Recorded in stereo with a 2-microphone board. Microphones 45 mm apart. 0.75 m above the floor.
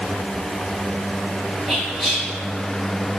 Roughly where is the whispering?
Centre.